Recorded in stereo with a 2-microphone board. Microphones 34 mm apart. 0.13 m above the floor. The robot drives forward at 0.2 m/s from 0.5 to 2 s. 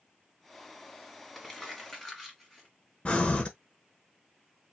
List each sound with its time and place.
1.4 s crumpling: 15° left (ahead or behind), 1.7 m
3.0 s breathing: 40° left (ahead or behind), 0.9 m